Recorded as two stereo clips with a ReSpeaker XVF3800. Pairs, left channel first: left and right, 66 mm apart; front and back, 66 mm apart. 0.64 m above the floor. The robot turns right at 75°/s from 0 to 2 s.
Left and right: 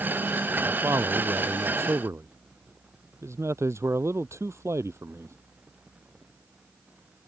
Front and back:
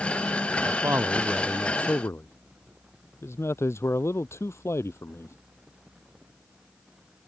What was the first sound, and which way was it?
A man speaking, 150° right.